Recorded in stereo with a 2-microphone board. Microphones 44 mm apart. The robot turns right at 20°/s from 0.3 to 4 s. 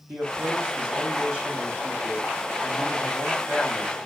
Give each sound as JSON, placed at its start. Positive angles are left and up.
{"t": 0.1, "sound": "a man speaking", "azimuth_deg": -65, "distance_m": 1.9}